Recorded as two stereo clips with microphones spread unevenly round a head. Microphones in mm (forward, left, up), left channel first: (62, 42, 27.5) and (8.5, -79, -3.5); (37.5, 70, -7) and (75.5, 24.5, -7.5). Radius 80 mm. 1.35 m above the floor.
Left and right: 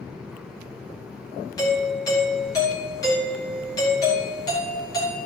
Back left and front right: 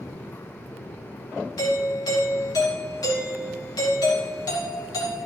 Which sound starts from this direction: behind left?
A doorbell, at 1.6 s.